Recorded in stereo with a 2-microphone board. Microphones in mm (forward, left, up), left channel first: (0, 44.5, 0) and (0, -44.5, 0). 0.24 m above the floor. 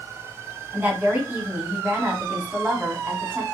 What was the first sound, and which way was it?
A woman speaking, 20° right (ahead or behind).